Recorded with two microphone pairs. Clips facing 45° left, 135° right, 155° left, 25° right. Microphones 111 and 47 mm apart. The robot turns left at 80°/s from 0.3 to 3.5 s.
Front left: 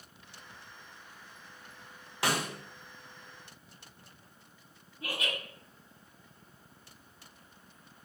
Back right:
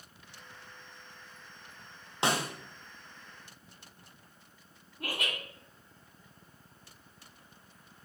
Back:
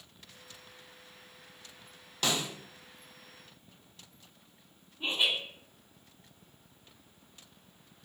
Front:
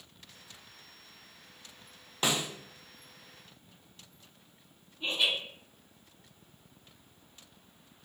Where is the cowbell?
No cowbell in this recording.